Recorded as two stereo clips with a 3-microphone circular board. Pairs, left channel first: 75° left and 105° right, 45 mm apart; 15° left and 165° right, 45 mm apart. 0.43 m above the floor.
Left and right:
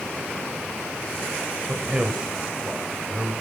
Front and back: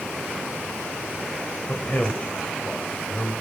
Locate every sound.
1.7 s a man speaking: 35° right, 2 m